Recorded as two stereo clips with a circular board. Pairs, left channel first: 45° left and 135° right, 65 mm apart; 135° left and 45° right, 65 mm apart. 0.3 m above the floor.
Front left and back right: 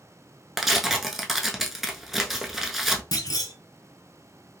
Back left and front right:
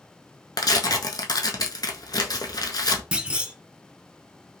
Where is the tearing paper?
140° left, 0.6 m.